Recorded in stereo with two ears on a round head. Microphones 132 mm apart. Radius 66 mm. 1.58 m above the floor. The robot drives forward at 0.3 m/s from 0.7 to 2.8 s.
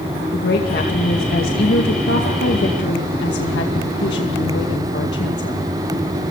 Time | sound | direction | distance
0.3 | a woman speaking | 75° left (ahead or behind) | 2.5 m